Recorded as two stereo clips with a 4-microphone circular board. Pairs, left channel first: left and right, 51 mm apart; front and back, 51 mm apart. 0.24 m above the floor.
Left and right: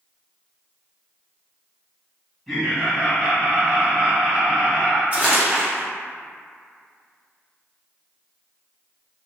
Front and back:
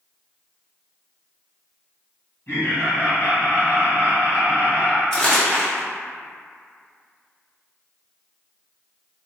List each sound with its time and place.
2.5 s laughter: 10° left, 1.8 m
5.1 s crumpling: 70° right, 1.3 m